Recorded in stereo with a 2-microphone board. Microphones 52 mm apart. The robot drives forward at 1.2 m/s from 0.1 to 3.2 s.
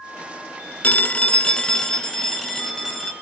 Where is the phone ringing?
30° left (ahead or behind), 0.6 m; by 3.1 s 5° left (ahead or behind), 3 m.